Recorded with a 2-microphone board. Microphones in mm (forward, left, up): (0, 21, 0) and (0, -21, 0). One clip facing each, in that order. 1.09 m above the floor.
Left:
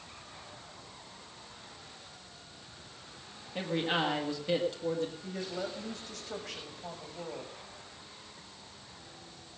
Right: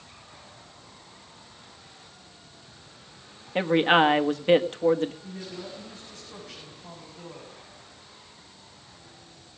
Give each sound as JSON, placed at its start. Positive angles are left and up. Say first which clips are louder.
{"t": 3.5, "sound": "a man speaking", "louder": "right 11 dB", "side_deg": -50, "distance_m": 1.4}
{"t": 5.2, "sound": "a woman speaking", "louder": "left 1 dB", "side_deg": 80, "distance_m": 6.5}